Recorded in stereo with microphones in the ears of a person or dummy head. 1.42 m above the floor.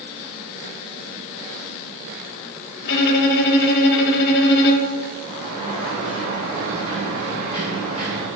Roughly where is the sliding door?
Left.